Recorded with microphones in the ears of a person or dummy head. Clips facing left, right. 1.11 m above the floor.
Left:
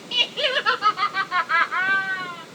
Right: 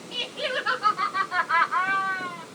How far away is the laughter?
About 1.1 m.